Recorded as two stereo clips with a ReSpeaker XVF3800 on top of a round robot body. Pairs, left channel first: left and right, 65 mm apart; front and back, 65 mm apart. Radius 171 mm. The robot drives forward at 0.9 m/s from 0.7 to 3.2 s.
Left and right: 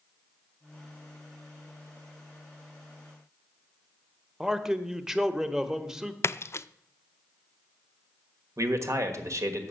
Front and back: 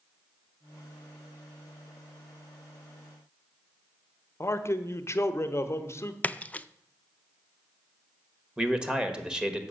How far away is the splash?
About 0.5 m.